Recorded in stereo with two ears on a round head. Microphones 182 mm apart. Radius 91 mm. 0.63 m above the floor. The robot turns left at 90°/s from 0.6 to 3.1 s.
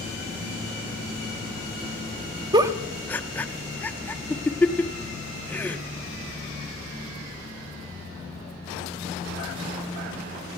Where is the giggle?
20° right (ahead or behind), 0.9 m; by 5.8 s 10° left (ahead or behind), 0.9 m.